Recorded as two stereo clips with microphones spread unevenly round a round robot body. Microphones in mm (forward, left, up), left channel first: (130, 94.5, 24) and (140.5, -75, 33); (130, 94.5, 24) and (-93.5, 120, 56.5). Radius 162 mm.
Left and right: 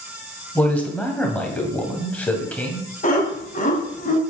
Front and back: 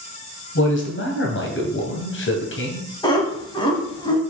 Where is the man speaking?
15° left, 2.5 m.